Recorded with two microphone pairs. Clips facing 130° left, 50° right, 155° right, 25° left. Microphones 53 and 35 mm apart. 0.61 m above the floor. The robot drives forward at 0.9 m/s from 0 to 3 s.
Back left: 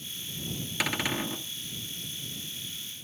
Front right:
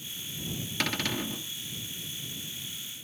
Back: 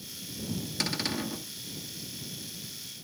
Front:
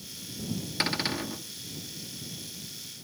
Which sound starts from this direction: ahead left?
A cupboard door, at 0.8 s.